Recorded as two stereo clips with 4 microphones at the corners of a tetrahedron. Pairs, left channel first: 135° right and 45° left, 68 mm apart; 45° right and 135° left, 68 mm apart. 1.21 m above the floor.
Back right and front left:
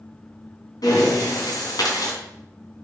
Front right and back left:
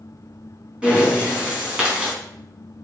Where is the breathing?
150° right, 3.5 m.